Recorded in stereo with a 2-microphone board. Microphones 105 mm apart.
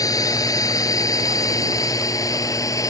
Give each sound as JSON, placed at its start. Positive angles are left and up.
{"t": 0.0, "sound": "a drone", "side_deg": 35}